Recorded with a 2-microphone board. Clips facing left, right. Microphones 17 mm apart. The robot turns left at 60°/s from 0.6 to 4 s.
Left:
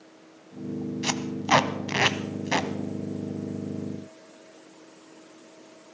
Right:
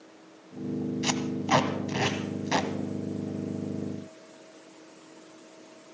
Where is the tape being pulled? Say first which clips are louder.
Left 3 dB; 5° left (ahead or behind), 0.7 m; by 2.7 s 55° left (ahead or behind), 0.7 m.